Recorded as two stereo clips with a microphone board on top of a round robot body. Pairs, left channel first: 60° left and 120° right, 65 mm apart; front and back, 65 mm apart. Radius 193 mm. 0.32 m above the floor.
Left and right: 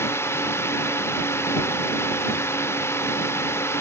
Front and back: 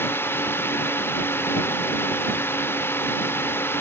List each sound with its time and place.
0.0 s a drone: 35° left